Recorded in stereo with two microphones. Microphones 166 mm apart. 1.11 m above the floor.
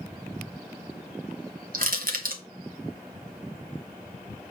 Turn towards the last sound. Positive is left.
turn(degrees=-60)  # may be behind; listen again after turning